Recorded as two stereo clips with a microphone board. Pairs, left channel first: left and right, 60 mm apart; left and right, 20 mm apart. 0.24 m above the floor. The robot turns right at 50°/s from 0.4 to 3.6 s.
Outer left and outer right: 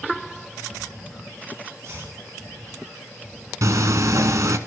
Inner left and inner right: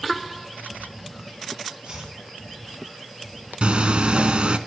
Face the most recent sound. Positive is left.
turn(degrees=-65)  # may be behind; listen again after turning